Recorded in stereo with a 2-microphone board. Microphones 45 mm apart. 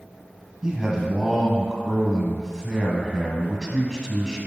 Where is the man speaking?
15° right (ahead or behind), 1.3 m.